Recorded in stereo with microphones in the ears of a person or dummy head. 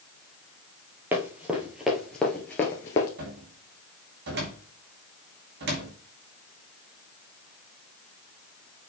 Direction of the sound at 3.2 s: 65° right (ahead or behind).